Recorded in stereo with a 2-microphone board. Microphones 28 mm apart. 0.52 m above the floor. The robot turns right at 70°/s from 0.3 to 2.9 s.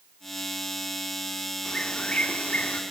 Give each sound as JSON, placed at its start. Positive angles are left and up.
{"t": 1.6, "sound": "a bird", "azimuth_deg": 15, "distance_m": 3.0}